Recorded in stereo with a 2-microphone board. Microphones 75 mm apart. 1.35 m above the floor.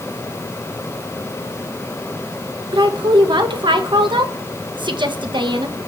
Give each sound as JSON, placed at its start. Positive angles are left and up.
{"t": 2.7, "sound": "a woman speaking", "side_deg": -85, "distance_m": 1.4}